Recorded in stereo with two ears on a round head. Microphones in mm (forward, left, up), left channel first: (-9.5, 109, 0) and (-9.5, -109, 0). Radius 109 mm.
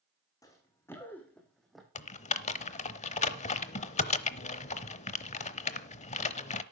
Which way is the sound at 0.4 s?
15° left (ahead or behind).